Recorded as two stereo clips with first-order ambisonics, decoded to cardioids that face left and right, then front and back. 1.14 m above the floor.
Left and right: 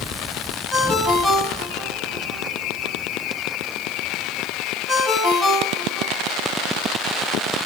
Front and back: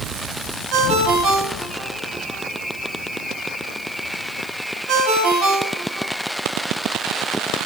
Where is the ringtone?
175° right, 5 m.